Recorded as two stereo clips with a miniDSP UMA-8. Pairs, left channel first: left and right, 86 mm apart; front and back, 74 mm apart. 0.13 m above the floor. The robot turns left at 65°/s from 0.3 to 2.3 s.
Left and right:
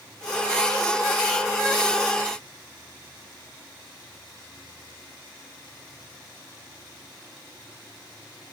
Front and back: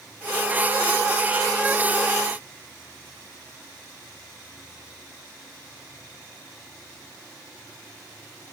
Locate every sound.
Only background noise.